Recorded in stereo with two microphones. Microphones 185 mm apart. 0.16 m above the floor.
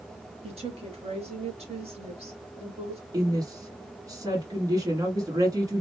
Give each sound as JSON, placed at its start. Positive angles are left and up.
{"t": 0.4, "sound": "a woman speaking", "side_deg": -35, "distance_m": 2.0}
{"t": 3.1, "sound": "a woman speaking", "side_deg": -20, "distance_m": 1.4}